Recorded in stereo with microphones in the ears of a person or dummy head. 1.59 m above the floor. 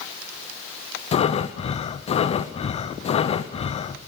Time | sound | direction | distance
1.1 | breathing | 35° left (ahead or behind) | 0.6 m